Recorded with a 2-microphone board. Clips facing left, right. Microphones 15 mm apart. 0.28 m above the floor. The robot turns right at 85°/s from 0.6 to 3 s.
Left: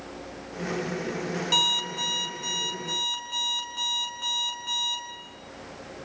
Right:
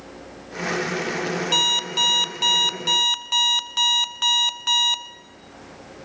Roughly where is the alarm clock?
Behind.